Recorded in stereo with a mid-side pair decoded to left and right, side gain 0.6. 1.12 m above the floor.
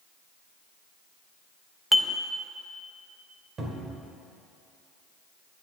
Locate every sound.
1.9 s dishes clattering: 5° right, 0.7 m
3.6 s a cupboard door: 40° right, 2 m